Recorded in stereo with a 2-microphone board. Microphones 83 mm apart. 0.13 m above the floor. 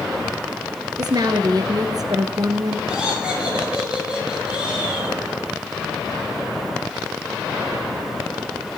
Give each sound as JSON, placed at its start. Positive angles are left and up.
{"t": 1.0, "sound": "a woman speaking", "side_deg": -50, "distance_m": 1.7}
{"t": 2.9, "sound": "laughter", "side_deg": -10, "distance_m": 9.0}